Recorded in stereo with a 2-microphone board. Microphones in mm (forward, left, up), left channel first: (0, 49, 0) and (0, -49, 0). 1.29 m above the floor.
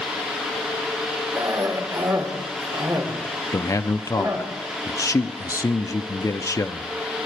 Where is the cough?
50° right (ahead or behind), 4.5 m.